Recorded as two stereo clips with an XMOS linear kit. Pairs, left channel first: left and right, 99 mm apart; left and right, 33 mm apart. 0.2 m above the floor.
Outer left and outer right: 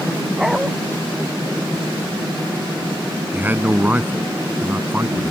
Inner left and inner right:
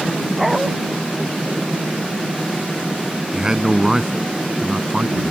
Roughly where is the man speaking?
Centre.